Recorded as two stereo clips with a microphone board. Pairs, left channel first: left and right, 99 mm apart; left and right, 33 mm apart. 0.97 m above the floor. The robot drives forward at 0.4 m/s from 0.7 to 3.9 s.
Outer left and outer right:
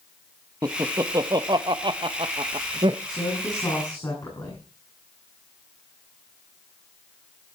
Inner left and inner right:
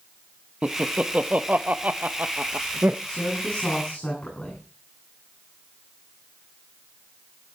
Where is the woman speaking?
40° left (ahead or behind), 9.5 m.